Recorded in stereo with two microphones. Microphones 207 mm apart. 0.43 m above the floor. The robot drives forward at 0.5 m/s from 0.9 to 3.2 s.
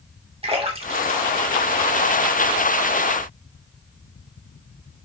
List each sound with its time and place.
0.4 s a splash: 30° right (ahead or behind), 0.9 m; by 2.5 s 25° right (ahead or behind), 1.2 m